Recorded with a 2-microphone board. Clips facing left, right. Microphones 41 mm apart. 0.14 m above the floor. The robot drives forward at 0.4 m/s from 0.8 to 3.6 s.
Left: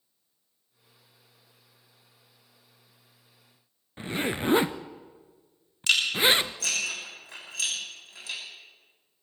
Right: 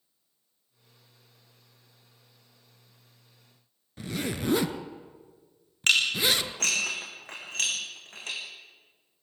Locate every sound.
4.0 s a zipper: 30° left (ahead or behind), 0.7 m
5.9 s dishes clattering: 55° right (ahead or behind), 5.5 m